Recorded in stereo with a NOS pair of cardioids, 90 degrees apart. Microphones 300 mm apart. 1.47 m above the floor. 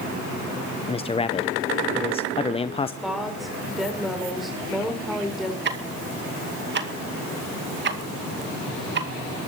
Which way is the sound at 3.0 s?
Straight ahead.